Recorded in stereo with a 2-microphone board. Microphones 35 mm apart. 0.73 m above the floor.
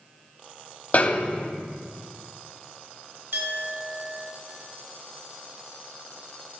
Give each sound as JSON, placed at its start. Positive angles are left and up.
{"t": 0.9, "sound": "a snare drum", "side_deg": 40, "distance_m": 0.7}
{"t": 3.3, "sound": "a clink", "side_deg": -75, "distance_m": 2.5}